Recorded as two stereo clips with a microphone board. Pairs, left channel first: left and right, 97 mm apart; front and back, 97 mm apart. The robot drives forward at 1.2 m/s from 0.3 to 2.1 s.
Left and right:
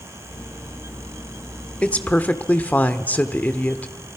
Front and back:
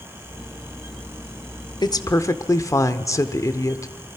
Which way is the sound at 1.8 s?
15° left.